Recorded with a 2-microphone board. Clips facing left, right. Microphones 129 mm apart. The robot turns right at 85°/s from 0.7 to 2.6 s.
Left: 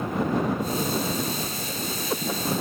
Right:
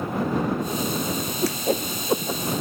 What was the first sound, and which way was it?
A whoosh, 80° right.